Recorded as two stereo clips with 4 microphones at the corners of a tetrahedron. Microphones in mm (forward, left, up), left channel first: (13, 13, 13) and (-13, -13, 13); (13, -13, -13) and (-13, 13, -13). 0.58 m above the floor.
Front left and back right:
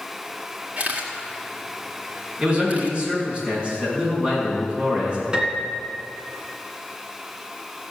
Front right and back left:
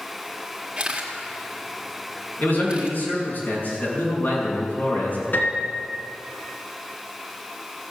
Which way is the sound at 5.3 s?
70° right.